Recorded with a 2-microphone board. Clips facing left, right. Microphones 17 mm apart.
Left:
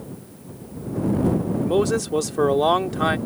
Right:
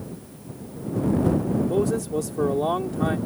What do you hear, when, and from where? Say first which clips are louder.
1.6 s a man speaking: left 3 dB; 60° left (ahead or behind)